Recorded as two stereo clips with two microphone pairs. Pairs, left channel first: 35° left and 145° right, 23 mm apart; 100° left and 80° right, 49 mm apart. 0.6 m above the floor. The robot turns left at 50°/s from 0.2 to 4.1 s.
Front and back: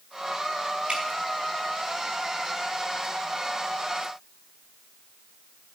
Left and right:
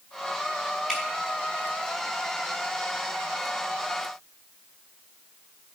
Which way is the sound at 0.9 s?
155° right.